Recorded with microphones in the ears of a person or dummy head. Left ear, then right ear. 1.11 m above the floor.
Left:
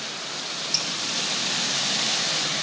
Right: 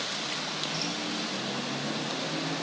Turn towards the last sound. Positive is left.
turn(degrees=70)  # may be behind; listen again after turning